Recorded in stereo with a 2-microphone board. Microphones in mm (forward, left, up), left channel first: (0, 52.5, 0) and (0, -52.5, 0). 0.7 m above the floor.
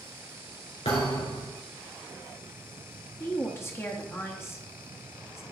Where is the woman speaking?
25° left (ahead or behind), 0.9 m.